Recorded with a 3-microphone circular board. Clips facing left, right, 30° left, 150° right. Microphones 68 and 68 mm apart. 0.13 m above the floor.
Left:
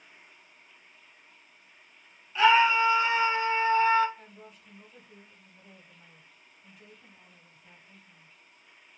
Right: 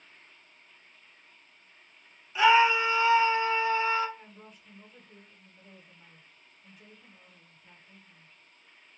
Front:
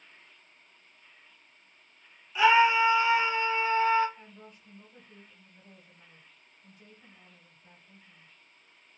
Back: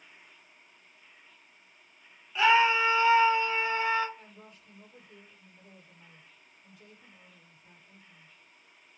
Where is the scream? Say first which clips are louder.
Even, front 2 dB; 35° right, 1.2 m; by 4.1 s 110° left, 1.3 m.